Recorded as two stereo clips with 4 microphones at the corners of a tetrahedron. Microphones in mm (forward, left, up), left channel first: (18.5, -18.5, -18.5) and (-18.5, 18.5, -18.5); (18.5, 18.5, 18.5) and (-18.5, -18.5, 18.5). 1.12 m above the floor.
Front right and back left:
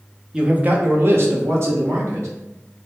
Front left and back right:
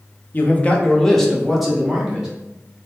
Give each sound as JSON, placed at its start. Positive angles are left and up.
{"t": 0.3, "sound": "a man speaking", "azimuth_deg": 75, "distance_m": 0.7}